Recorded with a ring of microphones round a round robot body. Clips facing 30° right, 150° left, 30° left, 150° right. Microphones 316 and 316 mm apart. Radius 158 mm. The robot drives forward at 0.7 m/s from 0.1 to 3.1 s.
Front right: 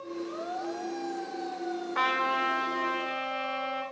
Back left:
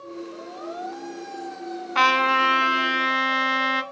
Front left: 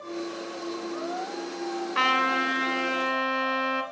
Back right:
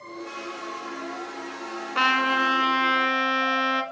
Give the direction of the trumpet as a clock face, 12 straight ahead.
8 o'clock.